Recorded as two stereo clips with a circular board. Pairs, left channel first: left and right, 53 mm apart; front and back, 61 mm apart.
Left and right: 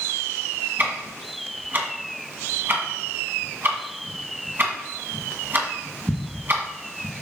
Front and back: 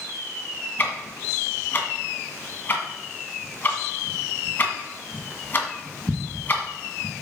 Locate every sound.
0.8 s ticking: 50° right, 1.8 m